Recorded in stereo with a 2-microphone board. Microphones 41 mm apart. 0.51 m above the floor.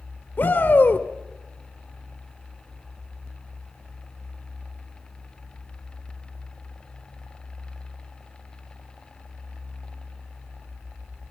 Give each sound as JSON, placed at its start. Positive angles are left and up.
{"t": 0.4, "sound": "a shout", "side_deg": 45, "distance_m": 1.7}